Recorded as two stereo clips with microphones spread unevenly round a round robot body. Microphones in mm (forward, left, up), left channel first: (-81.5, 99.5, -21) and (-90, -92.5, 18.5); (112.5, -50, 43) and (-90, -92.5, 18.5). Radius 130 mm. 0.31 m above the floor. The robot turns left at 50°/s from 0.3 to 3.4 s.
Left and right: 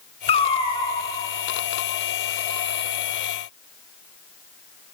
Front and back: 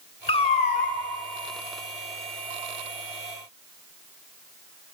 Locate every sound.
0.3 s a cat meowing: 75° left, 0.7 m; by 1.0 s 40° left, 0.7 m